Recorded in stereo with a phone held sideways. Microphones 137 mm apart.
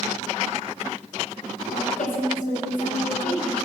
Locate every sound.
1.7 s a woman speaking: 70° left (ahead or behind), 4 m; by 3.5 s 80° left, 4.5 m